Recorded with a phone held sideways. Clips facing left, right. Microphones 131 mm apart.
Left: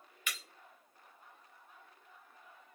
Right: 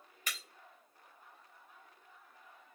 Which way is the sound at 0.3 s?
35° right (ahead or behind).